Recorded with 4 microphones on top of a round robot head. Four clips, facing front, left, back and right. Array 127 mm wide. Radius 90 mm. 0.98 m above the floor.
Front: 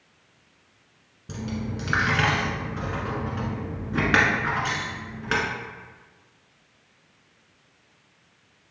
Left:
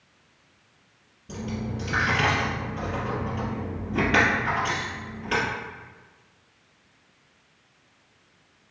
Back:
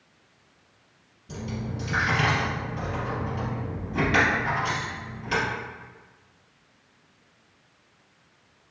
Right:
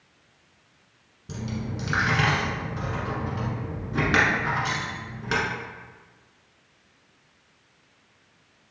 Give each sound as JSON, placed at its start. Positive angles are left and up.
{"t": 1.3, "sound": "a dropped coin", "azimuth_deg": -30, "distance_m": 1.2}